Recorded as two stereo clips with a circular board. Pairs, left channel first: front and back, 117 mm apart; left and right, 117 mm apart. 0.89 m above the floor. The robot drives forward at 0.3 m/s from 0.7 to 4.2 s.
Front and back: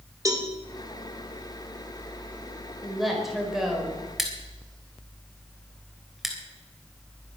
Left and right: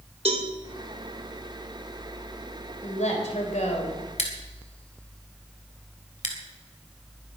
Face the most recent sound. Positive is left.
turn(degrees=90)